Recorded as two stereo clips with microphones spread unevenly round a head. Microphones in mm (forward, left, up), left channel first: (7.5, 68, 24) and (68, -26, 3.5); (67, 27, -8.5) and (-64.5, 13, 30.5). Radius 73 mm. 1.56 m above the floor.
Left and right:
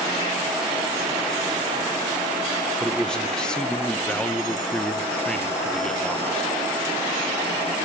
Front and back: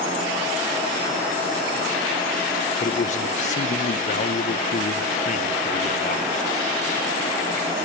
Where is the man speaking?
45° left, 1.3 m.